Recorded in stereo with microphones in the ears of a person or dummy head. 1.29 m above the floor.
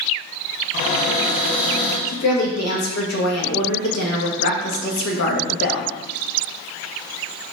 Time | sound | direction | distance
0.7 | a cupboard door | 55° left (ahead or behind) | 1.9 m
2.1 | a woman speaking | 65° left (ahead or behind) | 1.5 m